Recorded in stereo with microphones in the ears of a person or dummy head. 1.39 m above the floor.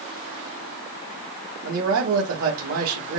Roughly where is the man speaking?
Right.